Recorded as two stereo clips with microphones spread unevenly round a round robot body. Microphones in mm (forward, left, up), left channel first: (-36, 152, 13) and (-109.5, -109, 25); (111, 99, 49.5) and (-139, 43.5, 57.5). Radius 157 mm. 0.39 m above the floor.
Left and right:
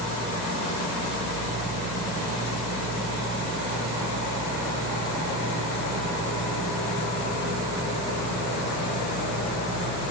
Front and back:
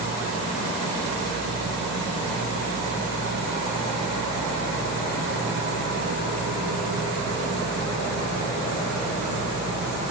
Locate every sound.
Only background noise.